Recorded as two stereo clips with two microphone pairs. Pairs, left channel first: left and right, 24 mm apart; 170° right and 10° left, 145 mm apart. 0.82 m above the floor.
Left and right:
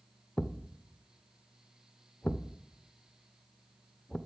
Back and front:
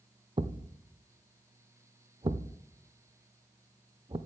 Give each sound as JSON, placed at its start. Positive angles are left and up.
{"t": 0.4, "sound": "a thud", "azimuth_deg": 55, "distance_m": 0.6}